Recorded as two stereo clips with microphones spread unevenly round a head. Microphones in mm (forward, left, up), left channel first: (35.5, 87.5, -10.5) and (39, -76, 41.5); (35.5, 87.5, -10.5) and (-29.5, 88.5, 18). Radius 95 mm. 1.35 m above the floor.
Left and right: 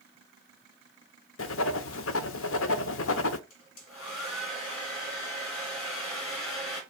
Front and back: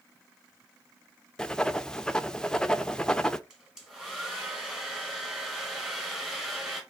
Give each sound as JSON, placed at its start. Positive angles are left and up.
{"t": 1.4, "sound": "writing", "azimuth_deg": 90, "distance_m": 0.5}
{"t": 3.5, "sound": "a hair dryer", "azimuth_deg": 115, "distance_m": 2.5}